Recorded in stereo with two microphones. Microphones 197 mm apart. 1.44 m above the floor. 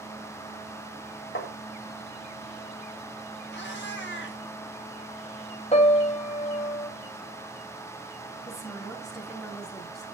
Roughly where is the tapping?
Left.